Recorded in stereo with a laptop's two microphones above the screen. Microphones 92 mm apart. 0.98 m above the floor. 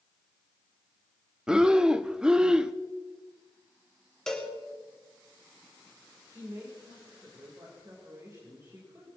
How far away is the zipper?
I don't hear a zipper.